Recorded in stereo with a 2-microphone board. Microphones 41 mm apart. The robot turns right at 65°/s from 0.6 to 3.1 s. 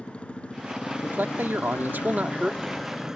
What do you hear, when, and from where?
0.0 s a motorcycle: 30° left; by 3.2 s 170° right
1.0 s a man speaking: 120° right; by 2.9 s straight ahead